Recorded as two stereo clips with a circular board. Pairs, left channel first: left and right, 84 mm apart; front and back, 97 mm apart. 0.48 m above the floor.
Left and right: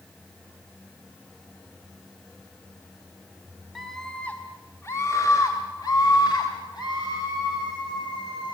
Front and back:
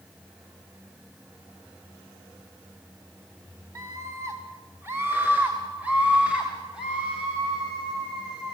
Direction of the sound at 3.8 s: Straight behind.